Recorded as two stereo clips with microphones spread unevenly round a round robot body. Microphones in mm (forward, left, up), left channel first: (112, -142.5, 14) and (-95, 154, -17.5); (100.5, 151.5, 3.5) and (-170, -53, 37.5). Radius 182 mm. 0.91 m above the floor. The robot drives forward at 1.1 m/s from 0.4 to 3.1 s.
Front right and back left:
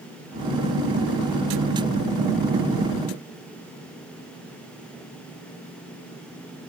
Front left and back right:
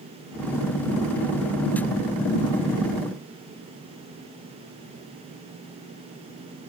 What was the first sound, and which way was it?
Only background noise.